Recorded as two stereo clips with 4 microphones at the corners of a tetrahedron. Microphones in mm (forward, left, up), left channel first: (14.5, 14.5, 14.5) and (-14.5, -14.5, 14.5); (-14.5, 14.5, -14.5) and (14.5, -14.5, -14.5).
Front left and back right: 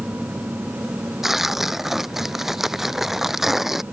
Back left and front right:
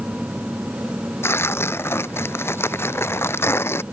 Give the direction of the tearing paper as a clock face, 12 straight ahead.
7 o'clock.